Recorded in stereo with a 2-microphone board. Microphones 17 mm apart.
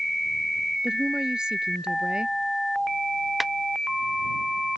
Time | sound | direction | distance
0.8 | a woman speaking | 50° right (ahead or behind) | ?
3.4 | a clap | 10° right (ahead or behind) | ?